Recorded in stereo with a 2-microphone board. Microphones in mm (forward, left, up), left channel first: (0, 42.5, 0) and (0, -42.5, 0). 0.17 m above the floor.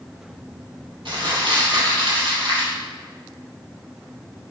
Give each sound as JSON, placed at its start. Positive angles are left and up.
{"t": 1.1, "sound": "crumpling", "side_deg": -65, "distance_m": 2.5}